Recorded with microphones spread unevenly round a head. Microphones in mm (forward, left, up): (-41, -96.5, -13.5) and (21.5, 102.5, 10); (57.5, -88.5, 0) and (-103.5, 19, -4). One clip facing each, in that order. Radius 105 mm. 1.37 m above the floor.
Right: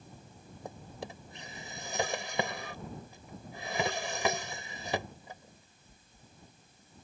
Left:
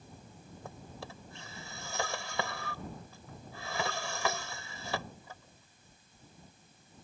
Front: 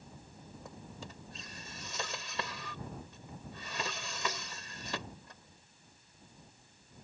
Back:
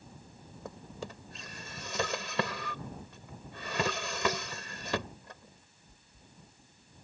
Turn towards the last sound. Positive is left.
turn(degrees=180)